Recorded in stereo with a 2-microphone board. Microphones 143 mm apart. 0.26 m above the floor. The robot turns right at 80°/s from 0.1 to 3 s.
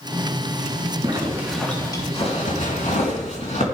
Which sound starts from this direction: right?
A zipper, at 1.0 s.